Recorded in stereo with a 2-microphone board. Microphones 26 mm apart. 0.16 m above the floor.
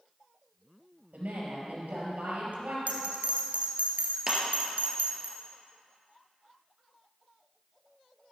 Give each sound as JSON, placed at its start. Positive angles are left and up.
{"t": 1.1, "sound": "a woman speaking", "side_deg": -65, "distance_m": 4.0}
{"t": 2.9, "sound": "a bell", "side_deg": -65, "distance_m": 1.4}
{"t": 4.3, "sound": "a clap", "side_deg": -20, "distance_m": 2.5}